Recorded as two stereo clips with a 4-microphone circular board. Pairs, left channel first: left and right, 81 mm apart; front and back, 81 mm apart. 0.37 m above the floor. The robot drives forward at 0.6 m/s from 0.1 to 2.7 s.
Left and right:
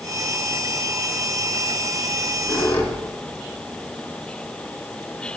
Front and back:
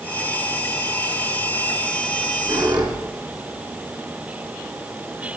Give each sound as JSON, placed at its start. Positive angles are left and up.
{"t": 2.1, "sound": "a squeak", "azimuth_deg": 155, "distance_m": 2.5}